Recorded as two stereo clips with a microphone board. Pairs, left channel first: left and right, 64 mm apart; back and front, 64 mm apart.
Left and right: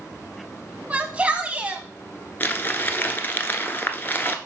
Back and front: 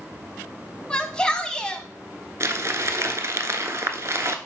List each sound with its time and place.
0.9 s a shout: 125° right, 1.4 m
2.4 s crumpling: 35° left, 0.9 m